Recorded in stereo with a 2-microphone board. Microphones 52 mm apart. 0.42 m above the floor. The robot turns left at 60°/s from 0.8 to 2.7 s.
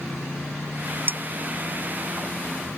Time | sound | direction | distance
1.1 | dishes clattering | 40° right (ahead or behind) | ?